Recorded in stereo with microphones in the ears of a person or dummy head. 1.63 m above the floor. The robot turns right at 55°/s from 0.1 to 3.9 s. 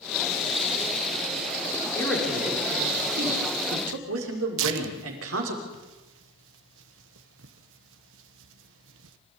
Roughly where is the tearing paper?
Right.